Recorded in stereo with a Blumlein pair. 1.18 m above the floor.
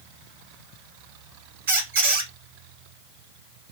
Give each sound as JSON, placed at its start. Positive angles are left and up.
{"t": 1.7, "sound": "a squeak", "azimuth_deg": -60, "distance_m": 1.4}